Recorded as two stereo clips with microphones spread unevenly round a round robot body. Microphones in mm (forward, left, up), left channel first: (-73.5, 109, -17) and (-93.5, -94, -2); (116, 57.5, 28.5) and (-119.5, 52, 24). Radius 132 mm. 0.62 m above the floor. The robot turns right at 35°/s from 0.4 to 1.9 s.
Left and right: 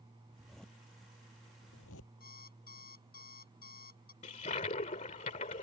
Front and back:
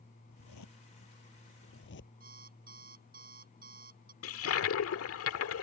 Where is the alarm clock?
130° left.